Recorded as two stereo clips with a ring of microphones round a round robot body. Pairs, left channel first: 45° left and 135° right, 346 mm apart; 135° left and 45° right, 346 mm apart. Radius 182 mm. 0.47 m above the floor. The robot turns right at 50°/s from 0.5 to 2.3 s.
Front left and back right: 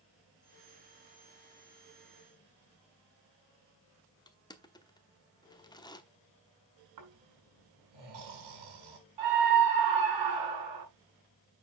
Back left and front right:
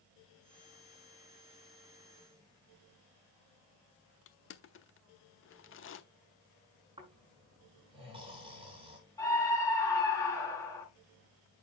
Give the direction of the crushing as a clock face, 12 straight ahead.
8 o'clock.